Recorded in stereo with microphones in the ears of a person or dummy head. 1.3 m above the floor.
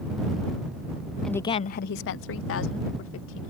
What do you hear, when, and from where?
1.2 s a woman speaking: 5° right (ahead or behind); by 3.5 s 80° left